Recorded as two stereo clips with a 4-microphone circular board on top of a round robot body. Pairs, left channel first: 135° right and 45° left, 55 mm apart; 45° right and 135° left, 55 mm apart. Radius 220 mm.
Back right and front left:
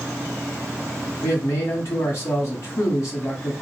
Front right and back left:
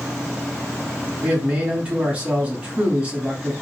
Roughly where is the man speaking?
Behind.